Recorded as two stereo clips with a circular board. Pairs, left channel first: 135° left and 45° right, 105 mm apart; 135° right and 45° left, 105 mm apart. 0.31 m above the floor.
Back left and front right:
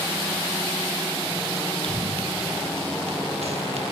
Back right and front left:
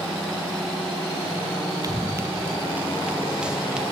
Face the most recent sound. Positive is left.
turn(degrees=-40)